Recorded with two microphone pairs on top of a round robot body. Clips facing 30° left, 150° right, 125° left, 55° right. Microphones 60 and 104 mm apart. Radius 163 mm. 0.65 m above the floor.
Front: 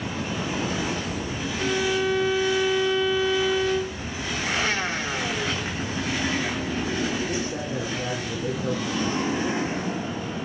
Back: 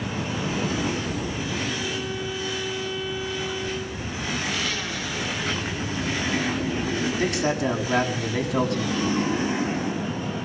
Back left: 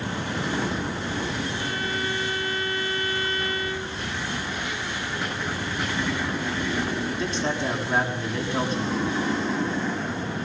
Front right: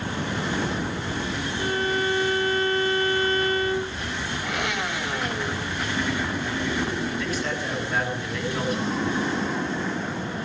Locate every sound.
1.6 s a violin: straight ahead, 0.8 m
4.4 s a blender: 30° right, 3 m
7.2 s a man speaking: 170° right, 8.5 m